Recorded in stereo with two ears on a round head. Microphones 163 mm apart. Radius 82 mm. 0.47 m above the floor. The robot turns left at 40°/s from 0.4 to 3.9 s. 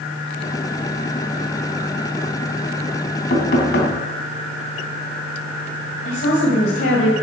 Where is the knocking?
50° left (ahead or behind), 3 m; by 4.0 s 70° left (ahead or behind), 3 m.